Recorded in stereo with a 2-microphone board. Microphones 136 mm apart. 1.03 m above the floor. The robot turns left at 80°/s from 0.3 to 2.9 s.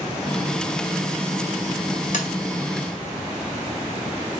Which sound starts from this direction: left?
Tapping, at 2.1 s.